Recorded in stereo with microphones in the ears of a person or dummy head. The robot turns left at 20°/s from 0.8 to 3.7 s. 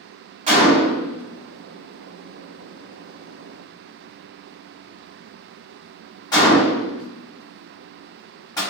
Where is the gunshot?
35° right (ahead or behind), 1.5 m; by 8.6 s 25° left (ahead or behind), 1.5 m.